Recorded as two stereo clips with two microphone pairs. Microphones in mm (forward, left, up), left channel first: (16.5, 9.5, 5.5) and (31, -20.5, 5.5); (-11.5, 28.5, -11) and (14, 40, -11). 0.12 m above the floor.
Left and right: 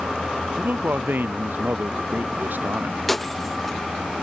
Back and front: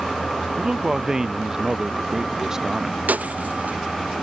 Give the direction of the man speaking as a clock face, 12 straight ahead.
2 o'clock.